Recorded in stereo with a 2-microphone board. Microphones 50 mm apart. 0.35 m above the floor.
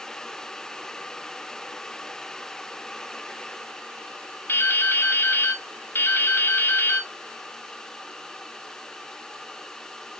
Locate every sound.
4.5 s dripping: 50° left (ahead or behind), 0.6 m